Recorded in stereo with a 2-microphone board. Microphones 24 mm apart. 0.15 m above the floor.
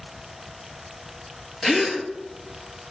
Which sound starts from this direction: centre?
A gasp, at 1.6 s.